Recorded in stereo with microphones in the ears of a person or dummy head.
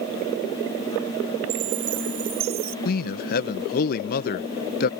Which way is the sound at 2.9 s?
55° left (ahead or behind).